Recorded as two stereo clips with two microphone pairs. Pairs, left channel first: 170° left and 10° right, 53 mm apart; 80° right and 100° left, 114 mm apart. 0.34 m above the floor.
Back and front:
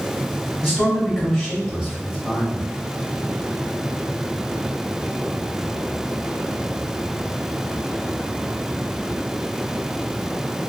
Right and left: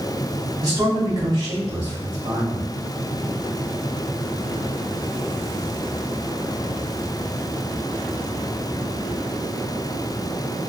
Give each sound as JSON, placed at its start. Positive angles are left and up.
{"t": 0.6, "sound": "a man speaking", "azimuth_deg": 65, "distance_m": 1.3}